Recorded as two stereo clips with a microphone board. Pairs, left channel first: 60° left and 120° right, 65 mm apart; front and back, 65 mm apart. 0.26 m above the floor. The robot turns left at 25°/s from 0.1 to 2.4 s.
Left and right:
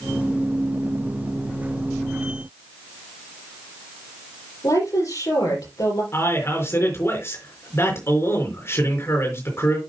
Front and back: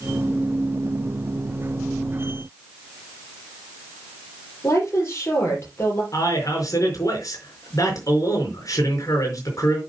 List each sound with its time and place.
4.6 s a woman speaking: 45° left, 6 m
6.1 s a man speaking: 15° left, 4.5 m